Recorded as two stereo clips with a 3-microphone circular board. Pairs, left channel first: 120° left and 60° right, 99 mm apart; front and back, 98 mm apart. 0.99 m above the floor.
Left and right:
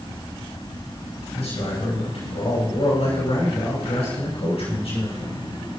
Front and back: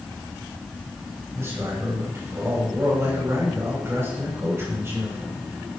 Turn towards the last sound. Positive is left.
turn(degrees=115)